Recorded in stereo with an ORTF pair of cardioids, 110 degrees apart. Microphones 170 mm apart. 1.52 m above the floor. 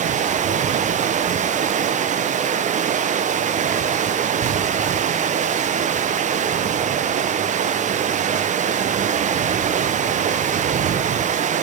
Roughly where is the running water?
Ahead right.